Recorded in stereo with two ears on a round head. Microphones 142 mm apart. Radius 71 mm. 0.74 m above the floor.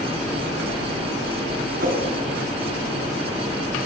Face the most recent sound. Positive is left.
turn(degrees=-60)  # may be behind; listen again after turning